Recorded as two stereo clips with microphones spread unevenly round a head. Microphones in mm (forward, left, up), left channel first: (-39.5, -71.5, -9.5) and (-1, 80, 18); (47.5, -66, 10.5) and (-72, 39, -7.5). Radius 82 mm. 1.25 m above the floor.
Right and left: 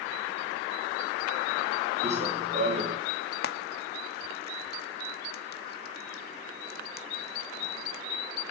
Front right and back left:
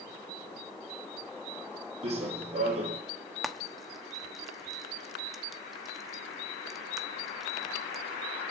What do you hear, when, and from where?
2.0 s running footsteps: 90° left, 1.9 m
3.4 s frying: 130° right, 1.1 m